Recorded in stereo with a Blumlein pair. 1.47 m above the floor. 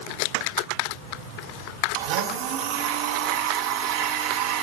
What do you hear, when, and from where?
1.9 s a blender: 45° right, 0.6 m